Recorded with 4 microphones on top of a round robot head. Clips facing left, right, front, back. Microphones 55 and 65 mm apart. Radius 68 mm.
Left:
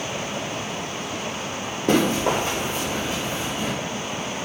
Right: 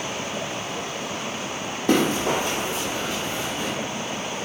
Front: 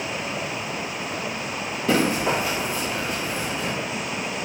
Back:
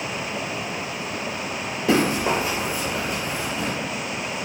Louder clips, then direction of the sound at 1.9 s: Left 1 dB, back 1 dB; 95° left.